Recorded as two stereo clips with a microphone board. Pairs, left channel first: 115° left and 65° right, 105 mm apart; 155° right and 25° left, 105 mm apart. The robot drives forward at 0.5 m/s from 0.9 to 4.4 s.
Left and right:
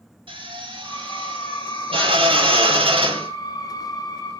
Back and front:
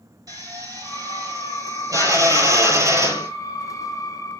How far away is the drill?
About 5.5 m.